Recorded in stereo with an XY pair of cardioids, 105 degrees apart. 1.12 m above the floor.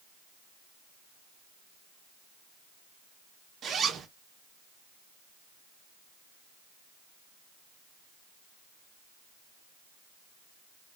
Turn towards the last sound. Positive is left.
turn(degrees=-60)